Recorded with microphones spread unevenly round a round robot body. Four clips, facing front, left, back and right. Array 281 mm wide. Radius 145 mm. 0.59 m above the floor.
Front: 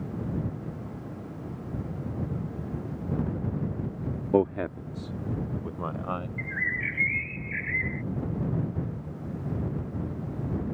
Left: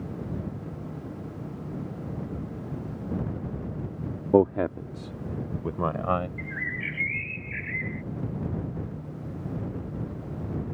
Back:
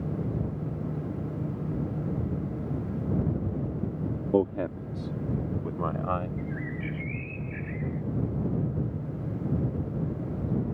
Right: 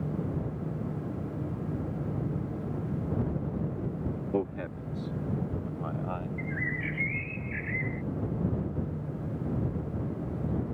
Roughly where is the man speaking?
Left.